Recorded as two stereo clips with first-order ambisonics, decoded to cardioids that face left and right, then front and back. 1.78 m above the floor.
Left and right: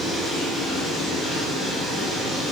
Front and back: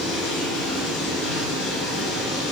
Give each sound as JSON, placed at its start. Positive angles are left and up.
{"t": 0.0, "sound": "running water", "azimuth_deg": 20, "distance_m": 9.5}